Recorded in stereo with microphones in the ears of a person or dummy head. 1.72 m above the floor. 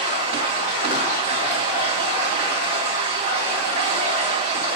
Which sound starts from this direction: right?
Running water, at 0.0 s.